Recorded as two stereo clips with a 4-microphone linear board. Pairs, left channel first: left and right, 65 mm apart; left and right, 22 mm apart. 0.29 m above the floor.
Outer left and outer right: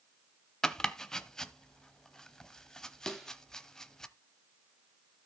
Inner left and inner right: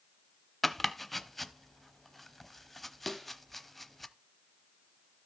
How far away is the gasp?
I don't hear a gasp.